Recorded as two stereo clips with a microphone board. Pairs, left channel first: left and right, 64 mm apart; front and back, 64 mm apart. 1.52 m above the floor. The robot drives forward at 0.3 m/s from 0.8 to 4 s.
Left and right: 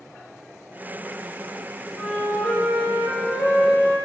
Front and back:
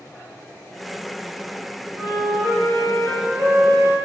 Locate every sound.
1.9 s a flute: 155° left, 1.7 m; by 4.0 s 160° left, 2 m